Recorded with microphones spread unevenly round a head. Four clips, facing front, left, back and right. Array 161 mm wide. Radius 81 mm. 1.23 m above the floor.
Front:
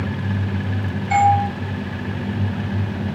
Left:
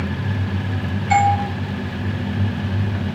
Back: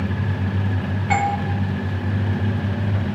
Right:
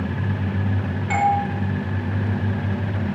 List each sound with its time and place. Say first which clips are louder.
1.1 s a doorbell: left 3 dB, front 6 dB; 170° right, 6.5 m